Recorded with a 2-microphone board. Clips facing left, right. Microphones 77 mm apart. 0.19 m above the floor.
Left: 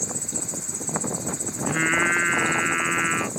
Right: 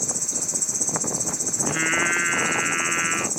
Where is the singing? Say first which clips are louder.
Left 1 dB; 10° left (ahead or behind).